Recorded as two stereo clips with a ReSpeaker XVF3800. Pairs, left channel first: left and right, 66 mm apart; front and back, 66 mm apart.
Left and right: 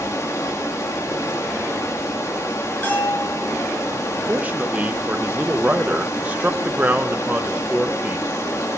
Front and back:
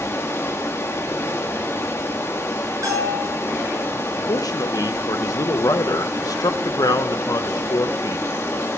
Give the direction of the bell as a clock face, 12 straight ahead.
7 o'clock.